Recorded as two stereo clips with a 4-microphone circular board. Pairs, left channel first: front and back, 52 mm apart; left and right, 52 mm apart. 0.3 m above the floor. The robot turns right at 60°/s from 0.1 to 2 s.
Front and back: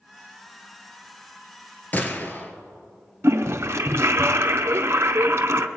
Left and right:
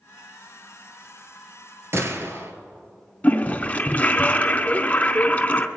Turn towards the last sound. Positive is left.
turn(degrees=150)